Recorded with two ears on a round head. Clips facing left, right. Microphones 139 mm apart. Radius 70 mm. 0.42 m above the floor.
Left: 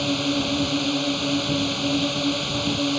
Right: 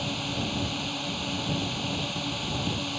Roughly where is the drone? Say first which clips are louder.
Left 9 dB; left.